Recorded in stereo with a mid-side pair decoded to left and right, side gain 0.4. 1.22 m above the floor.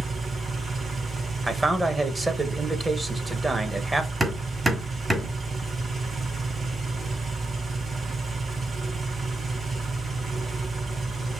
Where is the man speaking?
20° right, 1.3 m.